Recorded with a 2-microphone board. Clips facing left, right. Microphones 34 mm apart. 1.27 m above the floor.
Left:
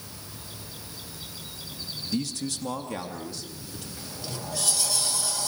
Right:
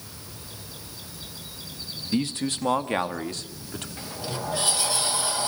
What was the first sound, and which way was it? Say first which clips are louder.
A man speaking: right 5 dB; 40° right (ahead or behind).